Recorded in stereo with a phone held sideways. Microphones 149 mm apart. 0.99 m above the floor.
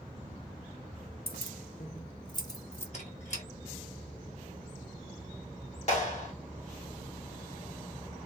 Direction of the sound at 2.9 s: 50° left (ahead or behind).